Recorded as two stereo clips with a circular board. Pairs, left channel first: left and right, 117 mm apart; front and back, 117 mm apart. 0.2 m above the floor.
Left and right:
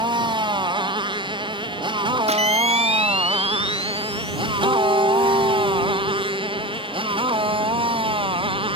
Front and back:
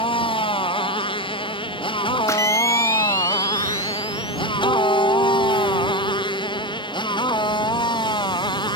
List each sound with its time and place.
0.0 s a motorcycle: 40° right; by 8.8 s 50° right
2.3 s a camera shutter: 65° right
4.6 s a guitar: 45° right